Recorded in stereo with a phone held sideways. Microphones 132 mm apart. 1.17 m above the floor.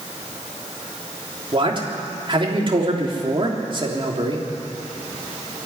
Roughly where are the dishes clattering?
No dishes clattering in this recording.